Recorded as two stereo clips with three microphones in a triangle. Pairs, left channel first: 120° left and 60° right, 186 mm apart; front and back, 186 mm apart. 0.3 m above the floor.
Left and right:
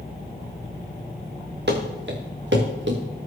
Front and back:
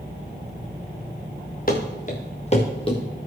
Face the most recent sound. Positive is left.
turn(degrees=-60)